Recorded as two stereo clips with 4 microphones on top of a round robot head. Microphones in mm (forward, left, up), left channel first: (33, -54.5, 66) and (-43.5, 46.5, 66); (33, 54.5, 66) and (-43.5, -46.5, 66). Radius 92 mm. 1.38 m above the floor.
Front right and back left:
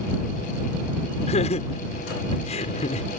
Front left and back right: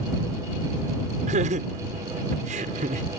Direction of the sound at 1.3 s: 90° right.